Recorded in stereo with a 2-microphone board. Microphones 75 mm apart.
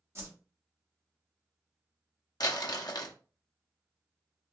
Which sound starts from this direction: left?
Crumpling, at 2.4 s.